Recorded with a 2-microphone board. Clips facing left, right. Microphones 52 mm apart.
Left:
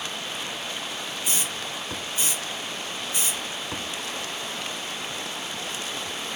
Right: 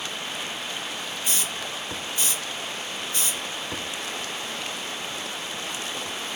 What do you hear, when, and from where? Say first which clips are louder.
1.2 s a hiss: right 1 dB; 20° left (ahead or behind), 0.8 m